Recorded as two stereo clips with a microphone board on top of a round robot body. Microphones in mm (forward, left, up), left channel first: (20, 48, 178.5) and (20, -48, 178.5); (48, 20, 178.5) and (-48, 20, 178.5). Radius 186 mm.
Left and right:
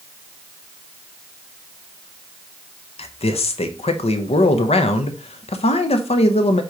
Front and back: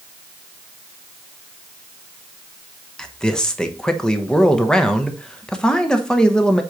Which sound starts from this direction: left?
A man speaking, at 3.0 s.